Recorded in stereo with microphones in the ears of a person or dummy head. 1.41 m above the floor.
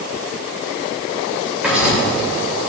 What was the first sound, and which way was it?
Writing, 15° right (ahead or behind).